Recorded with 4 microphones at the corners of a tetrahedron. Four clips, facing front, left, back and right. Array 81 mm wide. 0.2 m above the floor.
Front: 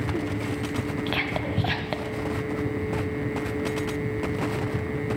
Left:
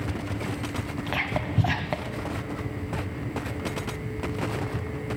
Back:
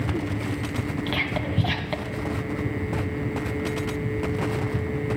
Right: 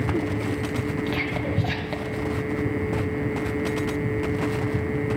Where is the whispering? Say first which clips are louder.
Right 3 dB, back 1 dB; 85° left, 1.1 m.